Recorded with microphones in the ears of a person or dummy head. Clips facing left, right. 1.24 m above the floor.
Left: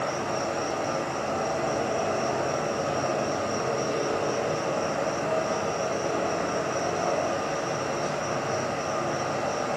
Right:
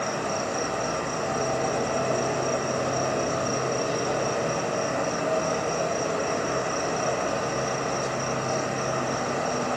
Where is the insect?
70° right (ahead or behind), 0.8 m.